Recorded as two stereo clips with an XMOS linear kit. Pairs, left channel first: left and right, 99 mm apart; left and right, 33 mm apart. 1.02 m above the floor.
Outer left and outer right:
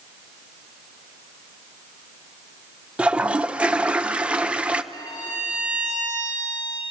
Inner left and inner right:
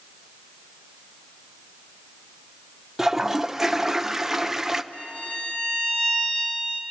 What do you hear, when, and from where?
3.0 s a toilet flushing: 10° right (ahead or behind), 0.5 m
4.9 s a violin: 40° left (ahead or behind), 2.5 m